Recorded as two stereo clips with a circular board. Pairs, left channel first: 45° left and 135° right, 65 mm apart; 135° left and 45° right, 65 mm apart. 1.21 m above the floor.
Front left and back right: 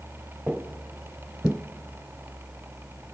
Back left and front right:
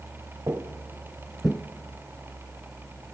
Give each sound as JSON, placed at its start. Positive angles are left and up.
{"t": 0.5, "sound": "footsteps", "azimuth_deg": -55, "distance_m": 1.8}